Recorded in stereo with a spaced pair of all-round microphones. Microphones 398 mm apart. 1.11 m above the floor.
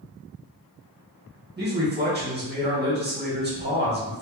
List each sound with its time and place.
1.6 s a man speaking: 25° right (ahead or behind), 1.2 m